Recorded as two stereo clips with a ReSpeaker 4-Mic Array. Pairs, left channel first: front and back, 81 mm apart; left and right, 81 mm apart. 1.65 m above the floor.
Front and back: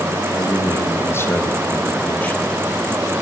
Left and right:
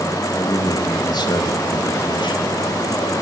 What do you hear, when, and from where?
0.3 s a man speaking: 50° left, 3.5 m; by 2.5 s 75° left, 3 m